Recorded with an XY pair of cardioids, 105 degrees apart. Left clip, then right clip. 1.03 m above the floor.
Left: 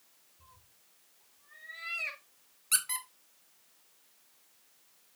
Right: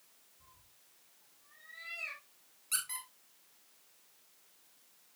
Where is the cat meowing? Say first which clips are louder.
Left 4 dB; 65° left, 6 m; by 2.2 s 75° left, 5.5 m.